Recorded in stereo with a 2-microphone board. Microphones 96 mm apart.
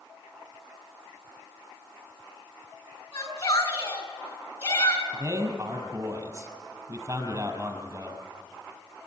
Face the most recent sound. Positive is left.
turn(degrees=-35)  # may be behind; listen again after turning